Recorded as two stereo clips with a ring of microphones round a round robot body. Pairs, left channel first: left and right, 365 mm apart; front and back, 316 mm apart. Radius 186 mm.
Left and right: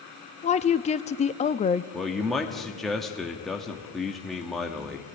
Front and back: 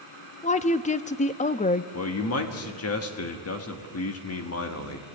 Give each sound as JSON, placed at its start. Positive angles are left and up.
{"t": 0.4, "sound": "a woman speaking", "azimuth_deg": 40, "distance_m": 0.6}
{"t": 1.9, "sound": "a man speaking", "azimuth_deg": 0, "distance_m": 1.3}